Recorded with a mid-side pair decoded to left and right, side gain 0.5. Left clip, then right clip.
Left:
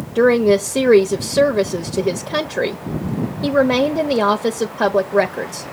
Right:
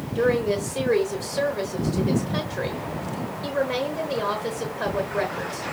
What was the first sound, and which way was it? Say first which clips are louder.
A woman speaking: left 9 dB; 65° left.